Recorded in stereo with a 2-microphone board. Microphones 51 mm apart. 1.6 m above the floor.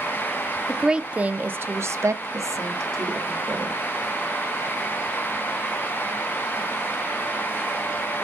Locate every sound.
0.7 s a woman speaking: 10° right (ahead or behind), 0.7 m; by 3.8 s 75° right (ahead or behind), 1.3 m